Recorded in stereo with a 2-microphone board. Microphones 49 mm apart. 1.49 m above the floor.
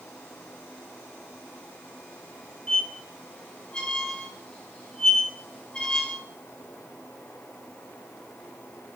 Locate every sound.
2.7 s a squeak: 20° left (ahead or behind), 0.6 m